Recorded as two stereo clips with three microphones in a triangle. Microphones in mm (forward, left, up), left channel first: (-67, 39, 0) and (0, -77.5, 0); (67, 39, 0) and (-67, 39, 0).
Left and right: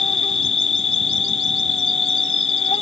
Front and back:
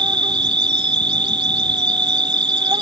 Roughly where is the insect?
Behind left.